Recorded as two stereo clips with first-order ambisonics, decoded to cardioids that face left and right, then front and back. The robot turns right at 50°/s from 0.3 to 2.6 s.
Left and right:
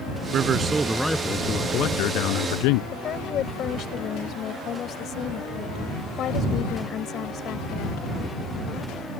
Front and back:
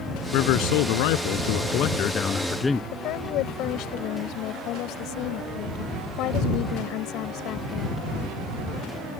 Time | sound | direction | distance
0.3 | a man speaking | 35° right | ?
2.9 | a woman speaking | 35° left | ?